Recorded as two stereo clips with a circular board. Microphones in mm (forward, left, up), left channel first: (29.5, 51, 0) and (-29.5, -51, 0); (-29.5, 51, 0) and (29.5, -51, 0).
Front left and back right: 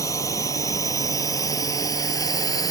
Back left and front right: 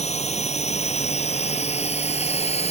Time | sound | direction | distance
0.0 | a drone | 120° left | ?